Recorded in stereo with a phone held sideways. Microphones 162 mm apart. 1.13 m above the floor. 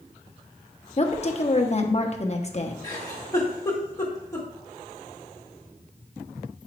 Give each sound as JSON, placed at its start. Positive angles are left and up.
{"t": 1.0, "sound": "a woman speaking", "side_deg": 40, "distance_m": 0.9}
{"t": 2.8, "sound": "a giggle", "side_deg": 20, "distance_m": 1.7}